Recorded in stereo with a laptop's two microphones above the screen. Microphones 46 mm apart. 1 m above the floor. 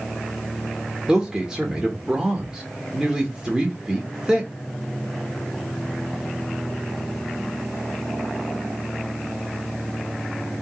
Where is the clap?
No clap in this recording.